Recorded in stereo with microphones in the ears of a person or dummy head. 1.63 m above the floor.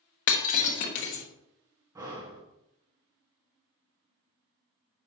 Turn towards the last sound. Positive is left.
turn(degrees=-20)  # may be behind; listen again after turning